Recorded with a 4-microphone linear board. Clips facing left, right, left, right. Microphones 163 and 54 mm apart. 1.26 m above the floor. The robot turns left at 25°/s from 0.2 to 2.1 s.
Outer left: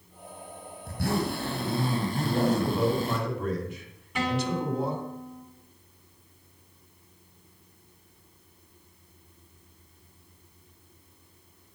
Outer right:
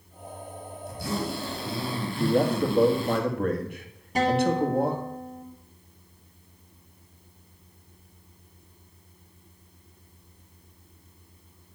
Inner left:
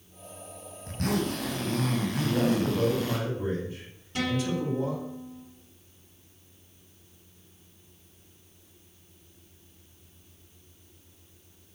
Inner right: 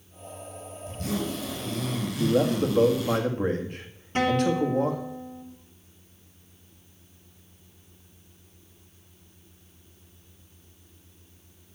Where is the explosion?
I don't hear an explosion.